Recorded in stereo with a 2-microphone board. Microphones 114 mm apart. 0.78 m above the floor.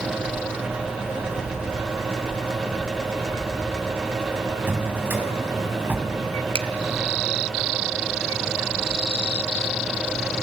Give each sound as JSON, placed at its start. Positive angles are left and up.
{"t": 4.7, "sound": "a drawer", "side_deg": -15, "distance_m": 3.5}
{"t": 6.5, "sound": "a finger snap", "side_deg": -50, "distance_m": 1.0}